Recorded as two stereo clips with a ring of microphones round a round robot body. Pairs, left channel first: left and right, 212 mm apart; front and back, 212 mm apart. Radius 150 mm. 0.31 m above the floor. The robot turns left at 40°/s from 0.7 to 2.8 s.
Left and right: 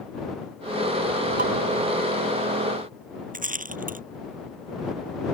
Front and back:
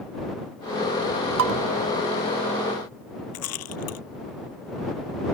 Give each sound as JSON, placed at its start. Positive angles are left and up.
{"t": 1.4, "sound": "dishes clattering", "azimuth_deg": -150}
{"t": 3.3, "sound": "a rattle", "azimuth_deg": -40}